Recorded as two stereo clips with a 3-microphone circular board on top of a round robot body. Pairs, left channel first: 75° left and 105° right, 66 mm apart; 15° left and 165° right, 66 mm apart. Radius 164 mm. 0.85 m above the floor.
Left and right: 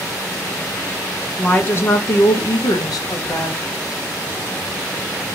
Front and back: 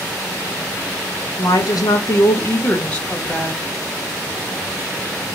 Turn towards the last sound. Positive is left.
turn(degrees=100)